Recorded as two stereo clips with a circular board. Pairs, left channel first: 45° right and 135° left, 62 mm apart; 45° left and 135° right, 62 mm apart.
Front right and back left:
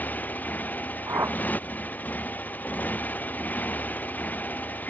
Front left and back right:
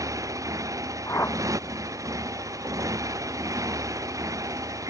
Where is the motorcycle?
110° right.